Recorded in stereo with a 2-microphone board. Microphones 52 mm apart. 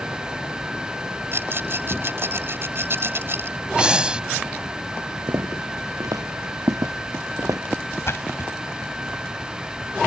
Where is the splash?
55° left (ahead or behind).